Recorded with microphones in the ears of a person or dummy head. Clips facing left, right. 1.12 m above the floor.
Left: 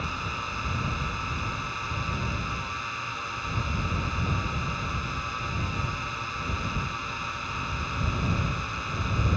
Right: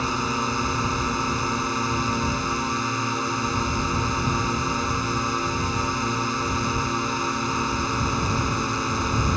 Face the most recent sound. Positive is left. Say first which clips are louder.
# right 11 dB
turn(degrees=-60)  # may be behind; listen again after turning